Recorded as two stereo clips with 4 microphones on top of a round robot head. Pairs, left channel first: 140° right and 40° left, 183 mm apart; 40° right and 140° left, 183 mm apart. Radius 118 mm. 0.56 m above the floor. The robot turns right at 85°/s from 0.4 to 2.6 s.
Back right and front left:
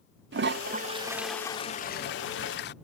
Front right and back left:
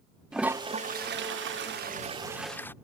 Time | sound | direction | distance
0.3 | a toilet flushing | 55° left | ?